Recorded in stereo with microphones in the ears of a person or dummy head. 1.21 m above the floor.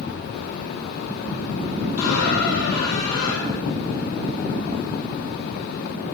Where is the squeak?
60° left (ahead or behind), 2.5 m.